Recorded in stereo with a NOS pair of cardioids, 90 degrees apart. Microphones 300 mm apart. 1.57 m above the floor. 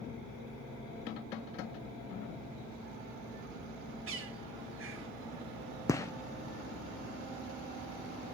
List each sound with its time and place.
4.1 s a bird: 45° right, 1.6 m
5.9 s a gunshot: 10° left, 0.6 m